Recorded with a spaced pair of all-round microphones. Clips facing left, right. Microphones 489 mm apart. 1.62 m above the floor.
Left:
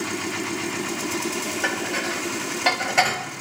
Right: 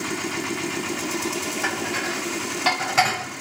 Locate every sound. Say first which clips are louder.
1.6 s dishes clattering: even; 25° right (ahead or behind), 4.5 m